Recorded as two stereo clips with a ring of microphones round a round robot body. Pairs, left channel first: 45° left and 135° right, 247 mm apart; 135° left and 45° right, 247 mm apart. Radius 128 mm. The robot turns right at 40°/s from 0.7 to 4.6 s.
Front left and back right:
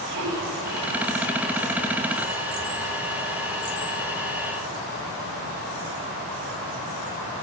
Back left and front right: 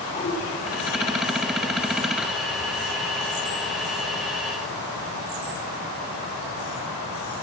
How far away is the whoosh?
About 4.5 m.